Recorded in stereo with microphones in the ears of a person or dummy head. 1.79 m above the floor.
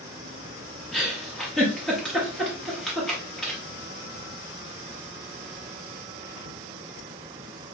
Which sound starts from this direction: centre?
A giggle, at 0.9 s.